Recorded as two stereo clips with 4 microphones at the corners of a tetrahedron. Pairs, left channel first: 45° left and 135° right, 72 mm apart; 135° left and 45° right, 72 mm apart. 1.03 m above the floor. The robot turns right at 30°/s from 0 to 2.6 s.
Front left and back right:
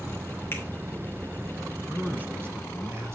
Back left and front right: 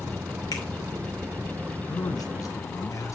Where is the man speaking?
150° left, 1.2 m; by 3.1 s 175° left, 1.2 m.